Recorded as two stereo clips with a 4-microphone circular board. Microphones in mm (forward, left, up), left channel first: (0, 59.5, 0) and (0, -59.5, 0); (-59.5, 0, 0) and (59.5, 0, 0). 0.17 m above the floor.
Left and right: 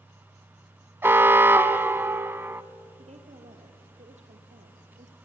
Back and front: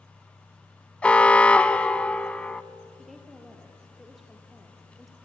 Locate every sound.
1.0 s an alarm: 115° right, 0.7 m
3.0 s a woman speaking: 90° right, 3.5 m